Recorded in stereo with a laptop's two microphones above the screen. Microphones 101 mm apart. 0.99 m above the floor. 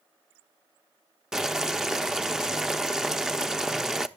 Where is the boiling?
5° right (ahead or behind), 0.6 m.